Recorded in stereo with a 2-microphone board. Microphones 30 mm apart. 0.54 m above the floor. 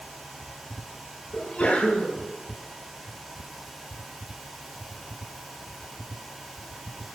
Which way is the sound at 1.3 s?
50° left (ahead or behind).